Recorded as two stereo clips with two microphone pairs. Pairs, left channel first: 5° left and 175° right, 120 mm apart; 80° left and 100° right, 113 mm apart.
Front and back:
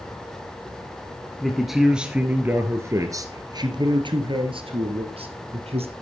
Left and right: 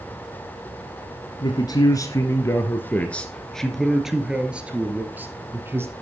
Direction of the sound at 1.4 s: 95° left.